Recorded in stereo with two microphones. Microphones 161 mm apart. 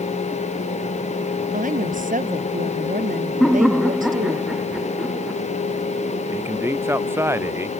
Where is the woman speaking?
55° right (ahead or behind).